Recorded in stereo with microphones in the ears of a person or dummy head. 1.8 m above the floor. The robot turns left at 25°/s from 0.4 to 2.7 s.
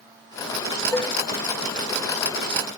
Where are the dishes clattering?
10° left (ahead or behind); by 1.2 s 15° left (ahead or behind).